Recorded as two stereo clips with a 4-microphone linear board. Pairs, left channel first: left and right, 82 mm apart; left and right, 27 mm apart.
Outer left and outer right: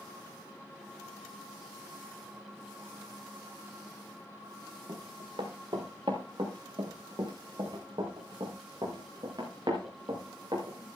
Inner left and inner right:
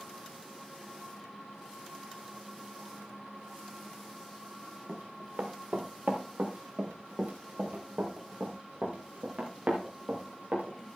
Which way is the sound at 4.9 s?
70° right (ahead or behind).